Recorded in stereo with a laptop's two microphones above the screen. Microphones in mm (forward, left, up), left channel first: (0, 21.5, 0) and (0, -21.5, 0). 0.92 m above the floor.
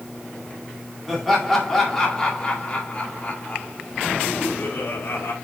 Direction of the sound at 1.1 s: Centre (ahead or behind).